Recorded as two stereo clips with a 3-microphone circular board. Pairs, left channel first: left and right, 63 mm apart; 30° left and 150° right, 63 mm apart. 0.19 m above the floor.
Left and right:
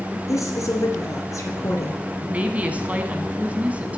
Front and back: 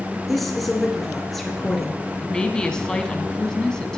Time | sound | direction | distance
0.3 | a woman speaking | 120° left | 2.5 m
2.2 | a woman speaking | 40° right | 1.3 m